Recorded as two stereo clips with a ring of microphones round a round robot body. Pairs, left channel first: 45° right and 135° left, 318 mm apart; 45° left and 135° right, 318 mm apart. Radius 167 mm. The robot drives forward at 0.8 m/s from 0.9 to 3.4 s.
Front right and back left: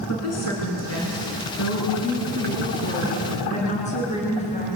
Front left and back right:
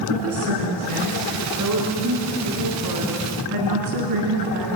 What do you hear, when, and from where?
0.1 s a woman speaking: 90° right, 4.5 m; by 4.7 s 115° right, 4.5 m